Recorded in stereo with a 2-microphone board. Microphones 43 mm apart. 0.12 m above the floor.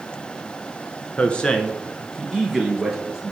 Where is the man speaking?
30° left (ahead or behind), 1.3 m; by 3.3 s 10° right (ahead or behind), 1.9 m.